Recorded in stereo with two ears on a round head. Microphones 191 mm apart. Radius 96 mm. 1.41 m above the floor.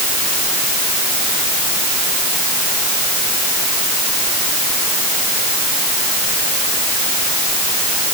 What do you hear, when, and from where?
Only background noise.